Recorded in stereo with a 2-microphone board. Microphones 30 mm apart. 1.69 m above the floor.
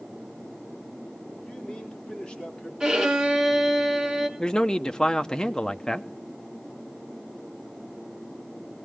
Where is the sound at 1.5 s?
30° left (ahead or behind), 4 m.